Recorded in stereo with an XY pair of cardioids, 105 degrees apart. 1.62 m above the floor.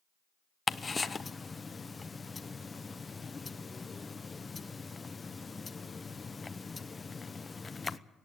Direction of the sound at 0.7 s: 25° left.